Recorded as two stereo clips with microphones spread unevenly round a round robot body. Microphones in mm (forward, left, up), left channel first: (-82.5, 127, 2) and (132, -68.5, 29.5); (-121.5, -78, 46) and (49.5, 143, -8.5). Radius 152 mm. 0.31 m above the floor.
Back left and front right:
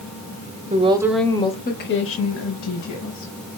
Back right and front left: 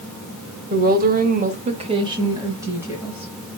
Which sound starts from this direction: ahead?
A woman speaking, at 0.7 s.